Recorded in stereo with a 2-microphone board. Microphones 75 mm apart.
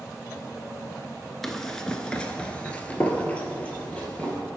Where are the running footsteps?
5° left (ahead or behind), 0.8 m; by 4.4 s 15° left (ahead or behind), 1.8 m.